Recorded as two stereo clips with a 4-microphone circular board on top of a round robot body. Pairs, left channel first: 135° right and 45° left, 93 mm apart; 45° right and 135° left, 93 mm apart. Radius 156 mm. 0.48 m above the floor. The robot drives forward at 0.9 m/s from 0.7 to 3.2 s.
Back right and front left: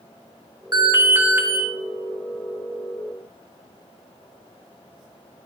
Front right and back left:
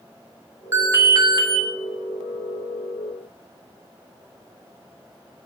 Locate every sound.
0.7 s an alarm: 80° left, 1.8 m; by 1.6 s 115° left, 1.8 m